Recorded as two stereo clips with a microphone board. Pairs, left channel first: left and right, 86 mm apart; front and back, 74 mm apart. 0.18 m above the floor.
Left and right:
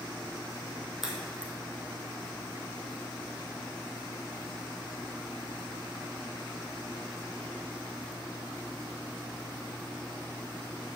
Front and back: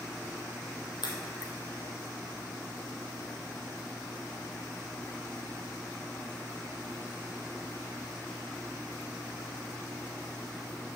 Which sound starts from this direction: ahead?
A crack, at 1.0 s.